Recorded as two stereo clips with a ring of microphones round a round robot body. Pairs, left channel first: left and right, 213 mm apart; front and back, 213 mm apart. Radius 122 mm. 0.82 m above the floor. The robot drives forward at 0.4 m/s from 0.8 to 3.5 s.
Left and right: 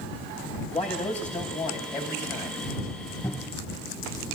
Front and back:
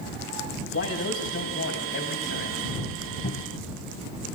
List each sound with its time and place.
0.7 s a man speaking: 30° left, 5.5 m; by 2.6 s 35° left, 5 m
3.2 s a cupboard door: 25° left, 3 m